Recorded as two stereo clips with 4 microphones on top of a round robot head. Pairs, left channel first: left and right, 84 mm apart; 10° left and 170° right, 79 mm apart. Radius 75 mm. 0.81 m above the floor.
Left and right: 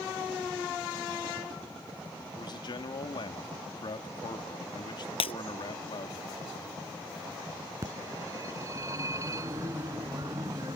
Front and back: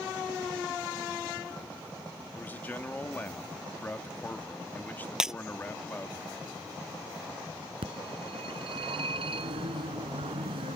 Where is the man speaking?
75° left.